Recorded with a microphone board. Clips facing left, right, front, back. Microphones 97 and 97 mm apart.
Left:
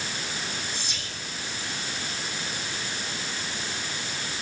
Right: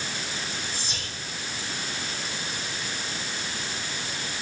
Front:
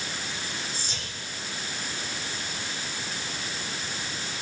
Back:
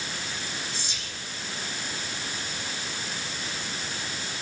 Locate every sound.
0.7 s whispering: 40° right, 4 m